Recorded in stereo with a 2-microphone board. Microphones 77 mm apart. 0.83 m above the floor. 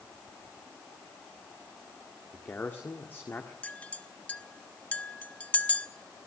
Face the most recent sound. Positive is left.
turn(degrees=20)  # may be behind; listen again after turning